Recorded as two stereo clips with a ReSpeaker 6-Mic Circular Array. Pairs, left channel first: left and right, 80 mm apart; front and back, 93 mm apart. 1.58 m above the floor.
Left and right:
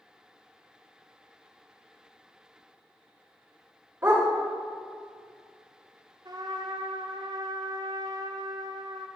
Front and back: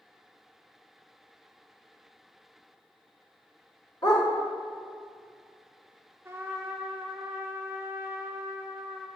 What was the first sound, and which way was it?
A dog barking, 30° right.